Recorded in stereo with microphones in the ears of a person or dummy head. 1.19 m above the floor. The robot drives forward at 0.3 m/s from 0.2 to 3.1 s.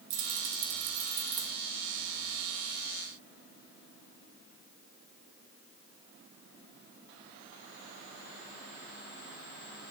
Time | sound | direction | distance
0.1 | keys jangling | 80° right | 0.7 m